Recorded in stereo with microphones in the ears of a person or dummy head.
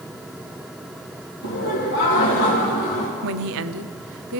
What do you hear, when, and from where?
1.4 s laughter: 75° left (ahead or behind), 3 m
3.2 s a woman speaking: 75° right (ahead or behind), 0.6 m